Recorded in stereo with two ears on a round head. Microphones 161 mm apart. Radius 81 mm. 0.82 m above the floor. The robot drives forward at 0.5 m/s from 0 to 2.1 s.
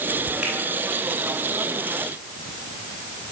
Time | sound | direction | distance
0.4 | a finger snap | 5° right (ahead or behind) | 6 m